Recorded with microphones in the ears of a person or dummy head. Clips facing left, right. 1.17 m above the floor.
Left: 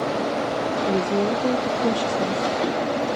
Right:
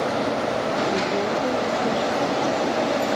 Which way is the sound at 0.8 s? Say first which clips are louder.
Left 2 dB; 25° left (ahead or behind).